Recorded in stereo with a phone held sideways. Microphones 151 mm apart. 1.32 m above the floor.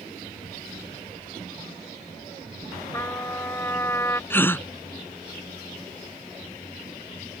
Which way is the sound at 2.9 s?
15° left (ahead or behind).